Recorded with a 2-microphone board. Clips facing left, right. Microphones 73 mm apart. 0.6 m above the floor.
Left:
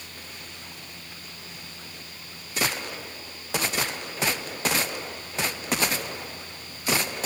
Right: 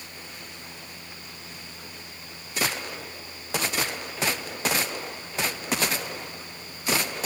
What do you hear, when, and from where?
Only background noise.